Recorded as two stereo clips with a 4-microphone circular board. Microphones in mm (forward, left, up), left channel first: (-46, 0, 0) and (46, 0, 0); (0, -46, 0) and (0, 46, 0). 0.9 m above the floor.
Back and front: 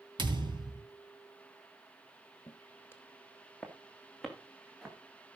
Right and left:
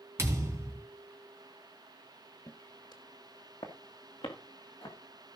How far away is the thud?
About 3.5 m.